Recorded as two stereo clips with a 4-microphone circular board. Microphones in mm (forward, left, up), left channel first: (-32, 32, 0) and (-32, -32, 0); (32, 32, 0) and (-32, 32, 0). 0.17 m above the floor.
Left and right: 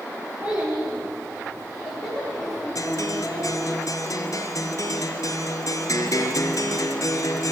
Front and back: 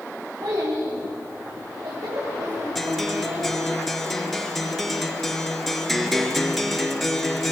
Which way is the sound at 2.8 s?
90° left.